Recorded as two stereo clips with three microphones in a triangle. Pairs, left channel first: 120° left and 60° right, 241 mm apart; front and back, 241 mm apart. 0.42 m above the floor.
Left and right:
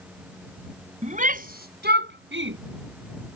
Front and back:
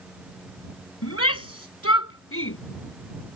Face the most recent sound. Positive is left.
turn(degrees=-25)